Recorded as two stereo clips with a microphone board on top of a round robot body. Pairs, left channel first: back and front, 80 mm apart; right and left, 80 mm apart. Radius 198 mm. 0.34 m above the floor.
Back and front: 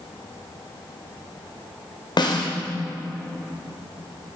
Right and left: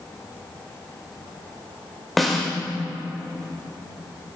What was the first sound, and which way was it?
A snare drum, straight behind.